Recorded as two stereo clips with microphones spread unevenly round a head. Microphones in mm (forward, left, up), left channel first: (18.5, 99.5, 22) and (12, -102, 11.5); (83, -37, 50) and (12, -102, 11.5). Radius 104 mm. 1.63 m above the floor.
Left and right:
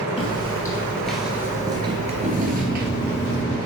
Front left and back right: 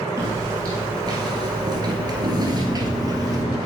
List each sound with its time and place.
0.2 s footsteps: 135° left, 2 m; by 3.4 s 75° right, 2.5 m
2.5 s a microwave: 5° left, 4 m